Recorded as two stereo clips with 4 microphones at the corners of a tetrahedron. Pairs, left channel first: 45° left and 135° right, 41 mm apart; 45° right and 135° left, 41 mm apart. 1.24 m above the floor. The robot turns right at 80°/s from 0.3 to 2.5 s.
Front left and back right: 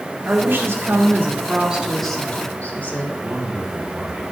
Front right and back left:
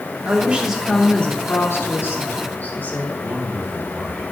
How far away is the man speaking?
About 4 m.